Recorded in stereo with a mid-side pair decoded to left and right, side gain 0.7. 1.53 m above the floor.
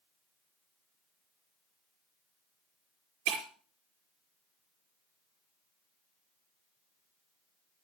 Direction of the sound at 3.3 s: 70° right.